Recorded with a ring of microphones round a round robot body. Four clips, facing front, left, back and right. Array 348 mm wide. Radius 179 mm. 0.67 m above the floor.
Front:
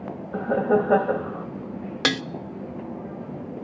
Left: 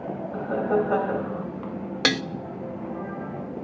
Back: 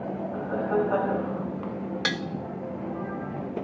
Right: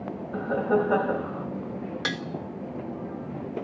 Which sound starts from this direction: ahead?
Laughter, at 0.3 s.